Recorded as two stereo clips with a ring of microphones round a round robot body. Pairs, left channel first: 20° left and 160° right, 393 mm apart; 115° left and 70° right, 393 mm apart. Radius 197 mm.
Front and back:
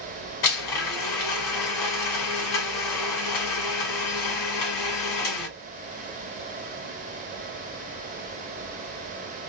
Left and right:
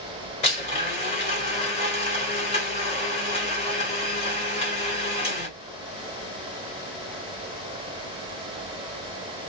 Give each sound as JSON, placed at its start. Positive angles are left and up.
{"t": 0.4, "sound": "a blender", "azimuth_deg": 40, "distance_m": 2.0}